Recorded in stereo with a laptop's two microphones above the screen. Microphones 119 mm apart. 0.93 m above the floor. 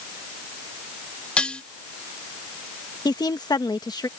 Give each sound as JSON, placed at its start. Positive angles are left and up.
{"t": 1.4, "sound": "dishes clattering", "side_deg": 10}
{"t": 3.0, "sound": "a woman speaking", "side_deg": 35}